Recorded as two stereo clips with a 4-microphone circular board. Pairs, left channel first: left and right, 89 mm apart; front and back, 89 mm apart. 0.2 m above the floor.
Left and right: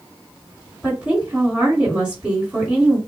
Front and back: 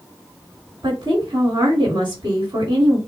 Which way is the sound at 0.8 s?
165° right.